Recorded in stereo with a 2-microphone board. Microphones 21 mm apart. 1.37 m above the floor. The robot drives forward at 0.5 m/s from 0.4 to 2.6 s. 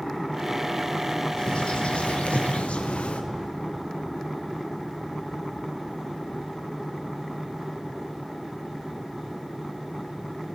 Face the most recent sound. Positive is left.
turn(degrees=70)  # may be behind; listen again after turning